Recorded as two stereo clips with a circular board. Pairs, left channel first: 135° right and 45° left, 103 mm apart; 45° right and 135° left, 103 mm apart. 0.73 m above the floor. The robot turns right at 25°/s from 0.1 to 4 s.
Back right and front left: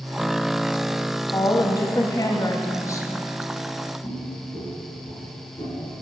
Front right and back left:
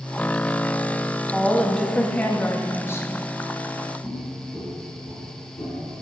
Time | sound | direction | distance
1.3 | a woman speaking | 135° right | 0.5 m
4.0 | footsteps | 145° right | 1.7 m